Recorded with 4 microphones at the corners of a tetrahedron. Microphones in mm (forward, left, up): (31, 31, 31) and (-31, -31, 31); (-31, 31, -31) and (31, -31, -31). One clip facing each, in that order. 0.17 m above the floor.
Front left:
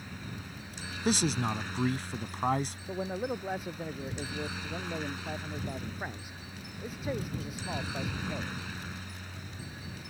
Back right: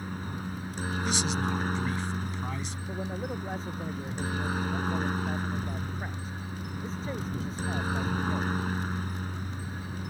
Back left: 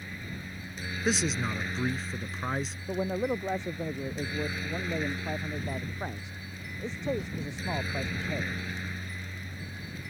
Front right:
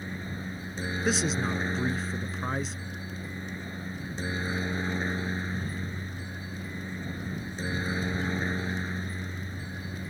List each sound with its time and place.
0.0 s a helicopter: 100° right
1.1 s a man speaking: 45° left
2.9 s a man speaking: 125° left